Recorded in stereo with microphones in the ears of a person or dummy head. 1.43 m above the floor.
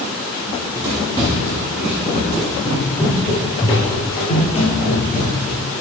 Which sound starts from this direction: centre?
Running footsteps, at 0.5 s.